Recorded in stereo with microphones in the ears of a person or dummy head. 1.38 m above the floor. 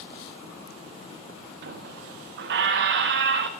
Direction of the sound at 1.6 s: 65° right (ahead or behind).